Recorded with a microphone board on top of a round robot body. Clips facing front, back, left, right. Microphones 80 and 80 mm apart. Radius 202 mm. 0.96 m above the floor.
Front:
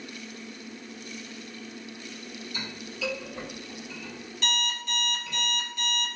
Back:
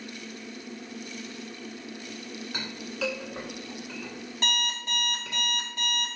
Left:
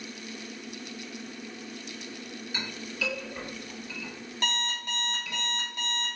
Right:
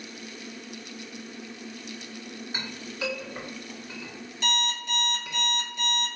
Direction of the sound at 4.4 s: 130° left.